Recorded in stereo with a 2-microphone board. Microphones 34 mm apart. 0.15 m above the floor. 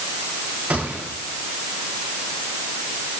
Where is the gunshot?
65° right (ahead or behind), 9.5 m.